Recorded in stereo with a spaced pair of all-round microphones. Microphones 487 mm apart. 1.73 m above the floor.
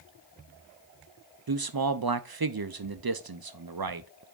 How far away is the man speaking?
About 0.6 m.